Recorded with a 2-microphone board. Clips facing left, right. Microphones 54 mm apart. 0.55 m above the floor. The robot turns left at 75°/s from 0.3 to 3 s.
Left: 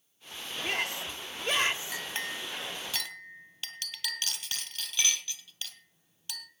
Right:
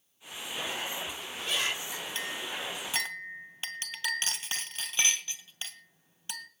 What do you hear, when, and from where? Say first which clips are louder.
0.6 s a shout: left 4 dB; 120° left, 2.5 m; by 2.0 s 10° left, 2.5 m
1.9 s a clink: left 1 dB; 55° left (ahead or behind), 2 m; by 6.5 s 25° right (ahead or behind), 2 m